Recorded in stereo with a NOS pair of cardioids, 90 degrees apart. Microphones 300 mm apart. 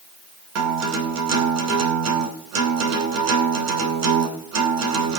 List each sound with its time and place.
0.6 s a guitar: 65° right, 3 m